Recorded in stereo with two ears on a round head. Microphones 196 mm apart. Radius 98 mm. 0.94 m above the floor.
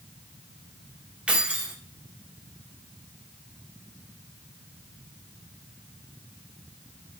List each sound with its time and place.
1.3 s keys jangling: 5° right (ahead or behind), 1.6 m